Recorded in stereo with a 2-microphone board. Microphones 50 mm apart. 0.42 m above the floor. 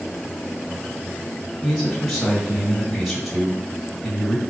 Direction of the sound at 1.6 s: Centre (ahead or behind).